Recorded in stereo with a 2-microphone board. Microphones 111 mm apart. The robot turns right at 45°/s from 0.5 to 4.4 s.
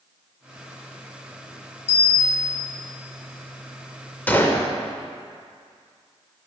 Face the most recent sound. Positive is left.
turn(degrees=20)  # may be behind; listen again after turning